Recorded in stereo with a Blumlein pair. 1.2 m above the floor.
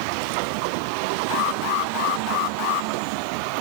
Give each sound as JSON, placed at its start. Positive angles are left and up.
{"t": 1.3, "sound": "an alarm", "azimuth_deg": 40, "distance_m": 1.5}